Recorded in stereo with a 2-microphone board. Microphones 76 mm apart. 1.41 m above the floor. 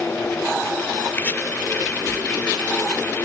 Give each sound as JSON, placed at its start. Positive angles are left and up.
{"t": 1.1, "sound": "chopping", "side_deg": 25}